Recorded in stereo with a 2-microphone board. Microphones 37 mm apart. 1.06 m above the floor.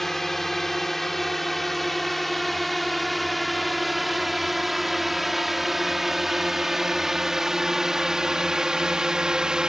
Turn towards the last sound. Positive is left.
turn(degrees=-20)  # may be behind; listen again after turning